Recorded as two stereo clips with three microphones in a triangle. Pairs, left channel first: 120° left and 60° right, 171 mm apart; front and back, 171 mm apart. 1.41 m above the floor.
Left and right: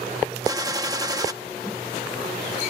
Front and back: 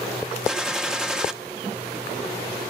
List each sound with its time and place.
0.5 s a gunshot: 100° right, 0.8 m